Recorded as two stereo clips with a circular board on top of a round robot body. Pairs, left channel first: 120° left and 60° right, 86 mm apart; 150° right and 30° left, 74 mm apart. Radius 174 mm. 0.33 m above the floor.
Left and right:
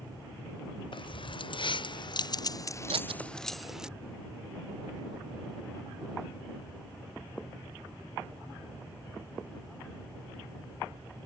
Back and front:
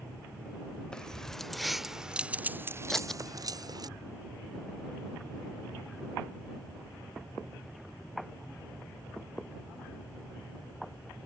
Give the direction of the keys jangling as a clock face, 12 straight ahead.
8 o'clock.